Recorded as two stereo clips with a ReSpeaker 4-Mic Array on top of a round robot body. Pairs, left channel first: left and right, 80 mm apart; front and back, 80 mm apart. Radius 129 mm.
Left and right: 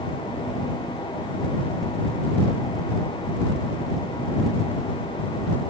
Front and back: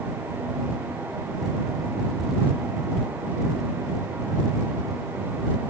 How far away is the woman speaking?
No woman speaking in this recording.